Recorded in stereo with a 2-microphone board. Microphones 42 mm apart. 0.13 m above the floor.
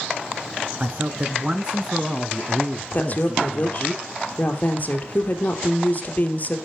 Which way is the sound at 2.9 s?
40° left (ahead or behind).